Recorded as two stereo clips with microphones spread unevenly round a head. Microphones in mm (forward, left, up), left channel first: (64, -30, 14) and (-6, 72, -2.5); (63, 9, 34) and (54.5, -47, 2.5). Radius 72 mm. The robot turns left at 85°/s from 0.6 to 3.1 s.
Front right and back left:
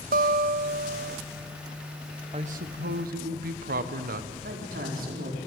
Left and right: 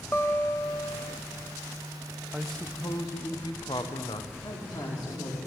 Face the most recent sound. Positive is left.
turn(degrees=120)